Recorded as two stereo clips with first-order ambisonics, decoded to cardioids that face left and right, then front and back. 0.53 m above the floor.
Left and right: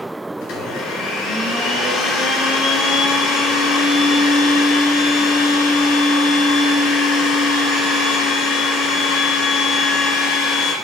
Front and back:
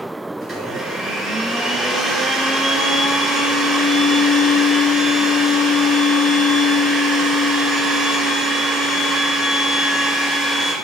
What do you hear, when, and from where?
0.4 s a blender: 105° left, 2.5 m